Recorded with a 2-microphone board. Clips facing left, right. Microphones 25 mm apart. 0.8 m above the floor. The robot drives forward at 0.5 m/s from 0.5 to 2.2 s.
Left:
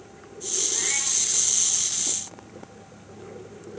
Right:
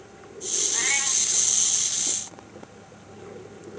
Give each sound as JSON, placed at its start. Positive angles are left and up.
{"t": 0.7, "sound": "a cat meowing", "side_deg": -30, "distance_m": 1.1}